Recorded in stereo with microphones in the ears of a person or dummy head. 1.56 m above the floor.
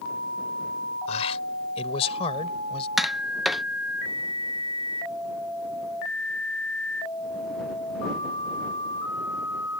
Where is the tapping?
Centre (ahead or behind).